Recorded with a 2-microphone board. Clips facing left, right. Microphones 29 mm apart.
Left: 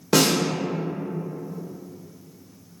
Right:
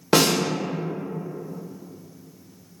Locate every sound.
0.1 s a snare drum: 20° right (ahead or behind), 1.0 m